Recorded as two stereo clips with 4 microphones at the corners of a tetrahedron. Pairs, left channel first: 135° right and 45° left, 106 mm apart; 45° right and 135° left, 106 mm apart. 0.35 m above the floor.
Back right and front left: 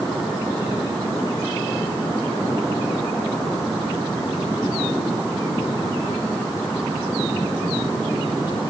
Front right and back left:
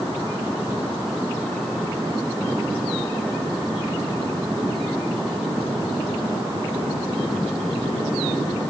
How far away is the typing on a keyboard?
I don't hear typing on a keyboard.